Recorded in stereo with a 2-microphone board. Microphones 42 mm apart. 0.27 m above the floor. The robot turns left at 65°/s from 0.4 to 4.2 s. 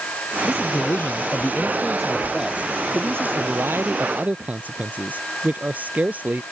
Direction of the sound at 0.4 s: 105° left.